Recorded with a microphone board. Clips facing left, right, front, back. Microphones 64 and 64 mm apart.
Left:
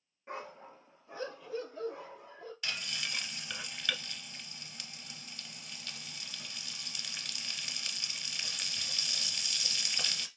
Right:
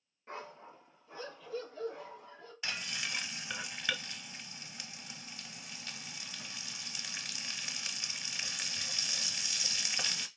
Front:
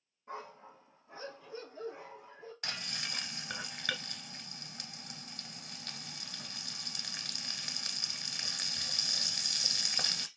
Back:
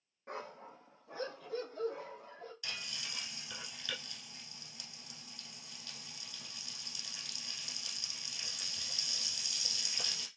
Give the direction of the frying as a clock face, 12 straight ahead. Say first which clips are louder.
Right 1 dB, front 6 dB; 1 o'clock.